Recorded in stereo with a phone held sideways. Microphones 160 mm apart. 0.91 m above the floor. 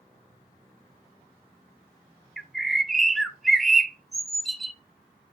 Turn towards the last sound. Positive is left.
turn(degrees=0)  # may be behind; listen again after turning